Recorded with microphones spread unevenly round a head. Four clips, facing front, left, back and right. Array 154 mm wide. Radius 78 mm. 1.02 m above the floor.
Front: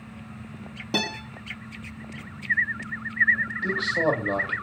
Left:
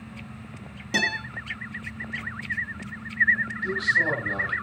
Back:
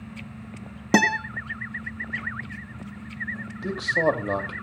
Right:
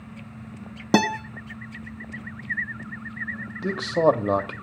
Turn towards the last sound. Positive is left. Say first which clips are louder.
# right 8 dB, back 2 dB
turn(degrees=-100)